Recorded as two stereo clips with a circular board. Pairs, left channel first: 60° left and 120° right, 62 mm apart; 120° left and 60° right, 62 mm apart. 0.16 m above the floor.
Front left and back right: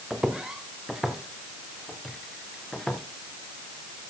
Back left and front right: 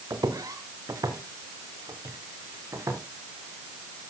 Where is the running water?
No running water in this recording.